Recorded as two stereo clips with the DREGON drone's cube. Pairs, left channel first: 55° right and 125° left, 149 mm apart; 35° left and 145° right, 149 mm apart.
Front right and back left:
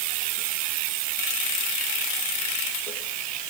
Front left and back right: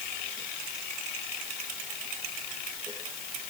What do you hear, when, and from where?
Only background noise.